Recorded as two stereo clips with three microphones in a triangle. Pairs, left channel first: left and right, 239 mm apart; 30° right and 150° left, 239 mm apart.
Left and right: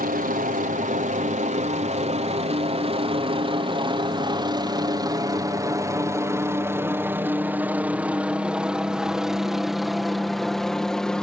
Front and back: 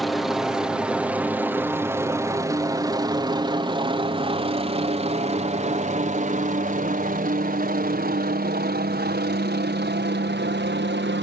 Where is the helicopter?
120° right; by 11.2 s 175° left.